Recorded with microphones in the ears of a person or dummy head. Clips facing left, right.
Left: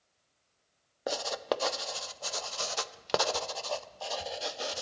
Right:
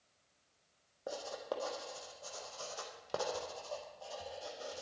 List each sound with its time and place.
1.1 s writing: 80° left, 0.6 m